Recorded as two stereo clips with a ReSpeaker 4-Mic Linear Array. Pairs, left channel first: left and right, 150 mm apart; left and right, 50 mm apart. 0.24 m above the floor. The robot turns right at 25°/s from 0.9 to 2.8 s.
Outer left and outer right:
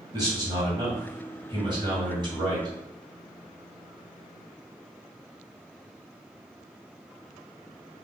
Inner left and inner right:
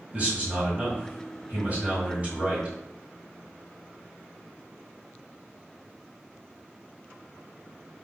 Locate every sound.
0.1 s a man speaking: 115° right, 1.7 m; by 2.8 s 65° right, 1.7 m